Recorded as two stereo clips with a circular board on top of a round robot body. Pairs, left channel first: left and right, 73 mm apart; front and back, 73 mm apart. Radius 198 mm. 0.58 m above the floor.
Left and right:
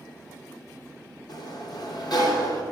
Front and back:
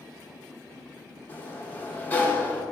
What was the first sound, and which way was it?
A sliding door, 65° left.